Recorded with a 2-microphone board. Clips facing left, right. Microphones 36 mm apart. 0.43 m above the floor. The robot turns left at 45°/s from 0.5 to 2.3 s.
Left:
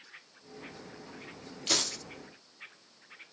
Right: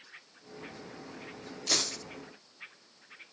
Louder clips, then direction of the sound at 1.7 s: Left 1 dB; 45° left (ahead or behind).